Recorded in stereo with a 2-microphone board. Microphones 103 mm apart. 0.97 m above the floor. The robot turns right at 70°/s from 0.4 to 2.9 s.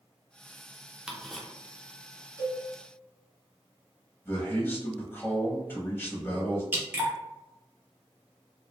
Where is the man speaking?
20° left (ahead or behind), 0.8 m.